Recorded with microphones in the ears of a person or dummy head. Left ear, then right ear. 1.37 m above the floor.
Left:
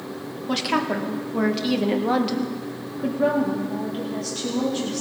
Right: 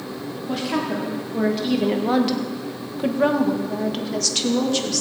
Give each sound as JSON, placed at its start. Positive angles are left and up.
{"t": 0.5, "sound": "a woman speaking", "side_deg": 40, "distance_m": 1.5}